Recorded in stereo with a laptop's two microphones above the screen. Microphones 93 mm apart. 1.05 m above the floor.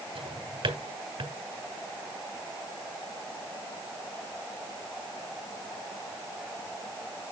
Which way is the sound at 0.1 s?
70° right (ahead or behind).